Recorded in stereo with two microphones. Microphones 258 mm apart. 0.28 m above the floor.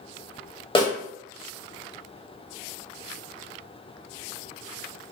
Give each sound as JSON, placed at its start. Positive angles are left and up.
{"t": 0.8, "sound": "a snare drum", "side_deg": 20, "distance_m": 0.9}